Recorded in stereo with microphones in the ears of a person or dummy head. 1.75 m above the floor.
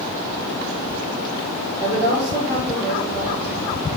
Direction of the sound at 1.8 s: 25° right (ahead or behind).